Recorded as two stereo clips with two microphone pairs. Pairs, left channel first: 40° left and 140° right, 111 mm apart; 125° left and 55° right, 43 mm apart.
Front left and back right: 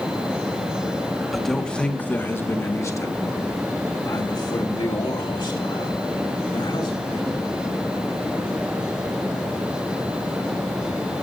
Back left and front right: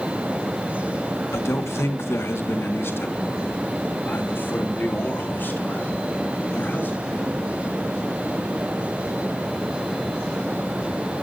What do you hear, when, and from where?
1.3 s a man speaking: 130° left, 1.5 m; by 7.4 s 80° left, 5 m